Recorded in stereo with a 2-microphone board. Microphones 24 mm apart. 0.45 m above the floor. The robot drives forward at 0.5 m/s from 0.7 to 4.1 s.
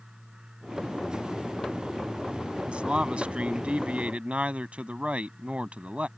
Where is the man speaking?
55° right (ahead or behind); by 6.1 s 65° right (ahead or behind).